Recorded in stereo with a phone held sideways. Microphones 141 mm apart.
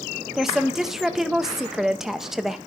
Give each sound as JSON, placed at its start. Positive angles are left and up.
{"t": 0.3, "sound": "a woman speaking", "side_deg": -5, "distance_m": 0.6}